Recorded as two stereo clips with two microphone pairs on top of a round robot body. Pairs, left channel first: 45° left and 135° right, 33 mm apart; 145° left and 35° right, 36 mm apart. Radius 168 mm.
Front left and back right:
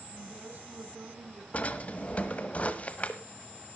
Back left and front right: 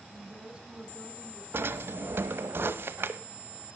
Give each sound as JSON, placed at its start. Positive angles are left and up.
{"t": 0.1, "sound": "a woman speaking", "azimuth_deg": -105, "distance_m": 5.0}
{"t": 1.5, "sound": "a drawer", "azimuth_deg": -10, "distance_m": 1.0}